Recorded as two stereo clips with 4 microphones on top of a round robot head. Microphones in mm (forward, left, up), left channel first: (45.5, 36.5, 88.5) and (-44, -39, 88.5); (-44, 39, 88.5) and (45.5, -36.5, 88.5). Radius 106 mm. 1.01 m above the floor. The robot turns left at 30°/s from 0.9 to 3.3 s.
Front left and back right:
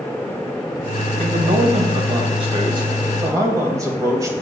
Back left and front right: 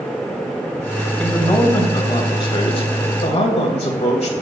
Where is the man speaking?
135° right, 2.5 m; by 4.3 s 160° left, 2.5 m.